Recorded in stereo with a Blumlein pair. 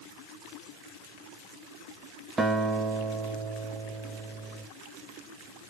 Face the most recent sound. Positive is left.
turn(degrees=-10)